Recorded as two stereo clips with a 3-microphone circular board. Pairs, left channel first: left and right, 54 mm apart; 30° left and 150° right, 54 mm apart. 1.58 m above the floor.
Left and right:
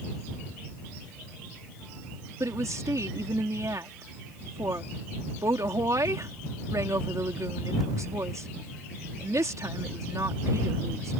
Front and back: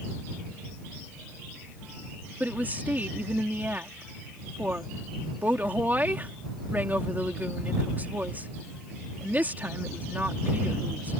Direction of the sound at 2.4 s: 95° right.